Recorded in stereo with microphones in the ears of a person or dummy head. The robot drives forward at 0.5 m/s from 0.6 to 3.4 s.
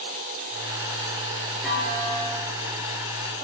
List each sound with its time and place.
1.6 s a clunk: 10° right (ahead or behind), 4 m; by 2.5 s 15° right (ahead or behind), 3.5 m